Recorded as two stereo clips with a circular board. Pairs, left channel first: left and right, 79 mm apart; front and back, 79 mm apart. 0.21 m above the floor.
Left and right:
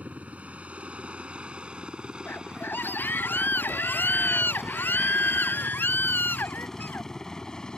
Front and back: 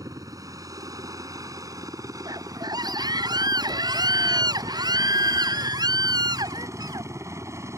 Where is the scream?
155° left.